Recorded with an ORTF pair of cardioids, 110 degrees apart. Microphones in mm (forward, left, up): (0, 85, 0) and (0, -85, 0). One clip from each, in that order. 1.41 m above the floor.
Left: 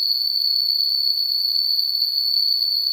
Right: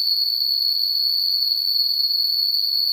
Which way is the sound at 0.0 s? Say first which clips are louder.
Even; 70° right.